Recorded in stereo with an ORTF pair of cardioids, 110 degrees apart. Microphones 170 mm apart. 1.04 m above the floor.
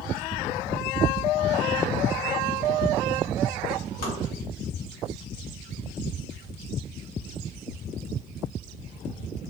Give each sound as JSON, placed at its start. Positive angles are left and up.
{"t": 4.0, "sound": "tapping", "azimuth_deg": 60, "distance_m": 2.0}